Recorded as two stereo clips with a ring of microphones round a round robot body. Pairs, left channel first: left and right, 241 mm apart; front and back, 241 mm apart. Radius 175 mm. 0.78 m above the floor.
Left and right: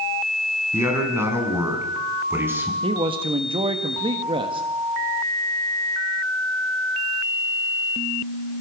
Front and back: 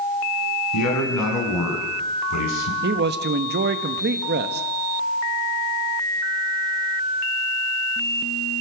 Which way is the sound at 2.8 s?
155° right.